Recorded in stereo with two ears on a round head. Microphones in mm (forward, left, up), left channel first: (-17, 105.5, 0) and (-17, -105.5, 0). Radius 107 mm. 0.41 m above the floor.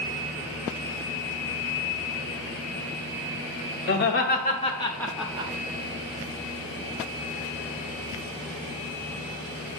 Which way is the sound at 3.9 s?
50° left (ahead or behind).